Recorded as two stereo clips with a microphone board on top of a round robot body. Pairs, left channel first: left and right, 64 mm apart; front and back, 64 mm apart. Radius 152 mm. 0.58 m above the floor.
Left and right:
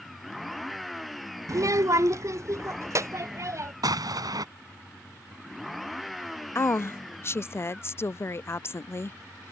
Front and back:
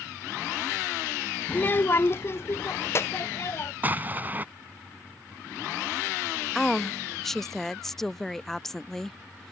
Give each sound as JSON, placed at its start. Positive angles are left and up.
{"t": 1.5, "sound": "a child speaking", "azimuth_deg": -60}
{"t": 3.8, "sound": "an explosion", "azimuth_deg": -115}
{"t": 6.5, "sound": "a woman speaking", "azimuth_deg": 80}